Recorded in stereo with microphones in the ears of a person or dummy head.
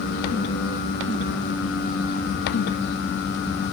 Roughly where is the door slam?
I don't hear a door slam.